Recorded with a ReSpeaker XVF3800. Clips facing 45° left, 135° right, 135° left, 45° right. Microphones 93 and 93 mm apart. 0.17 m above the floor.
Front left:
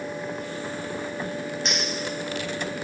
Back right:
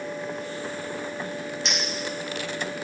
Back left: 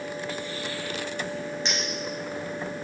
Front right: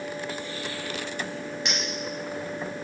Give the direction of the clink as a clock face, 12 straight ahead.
10 o'clock.